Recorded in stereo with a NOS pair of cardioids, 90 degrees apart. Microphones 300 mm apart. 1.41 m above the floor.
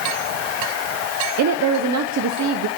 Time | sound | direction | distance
1.4 | a woman speaking | 65° right | 0.8 m